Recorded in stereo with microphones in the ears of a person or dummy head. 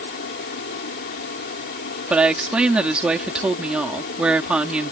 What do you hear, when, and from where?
0.0 s a fan: 55° left (ahead or behind)
2.1 s a woman speaking: 5° right (ahead or behind)